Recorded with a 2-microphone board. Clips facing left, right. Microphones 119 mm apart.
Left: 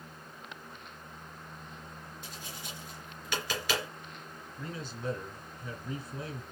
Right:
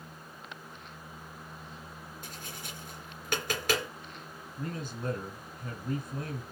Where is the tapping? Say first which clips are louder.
Right 1 dB; 50° right (ahead or behind), 3.5 m.